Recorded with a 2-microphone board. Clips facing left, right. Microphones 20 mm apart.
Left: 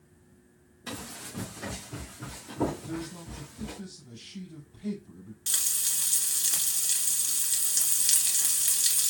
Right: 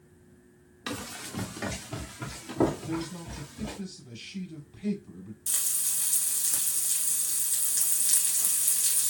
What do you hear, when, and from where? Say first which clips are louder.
0.9 s running footsteps: right 3 dB; 80° right, 1.5 m; by 3.8 s 70° right (ahead or behind), 2.5 m
2.8 s a man speaking: right 3 dB; 60° right (ahead or behind), 3.5 m
5.5 s frying: left 3 dB; 45° left (ahead or behind), 1.2 m